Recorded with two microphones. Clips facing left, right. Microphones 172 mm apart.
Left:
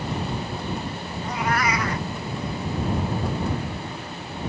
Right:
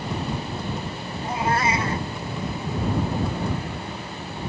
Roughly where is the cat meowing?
Right.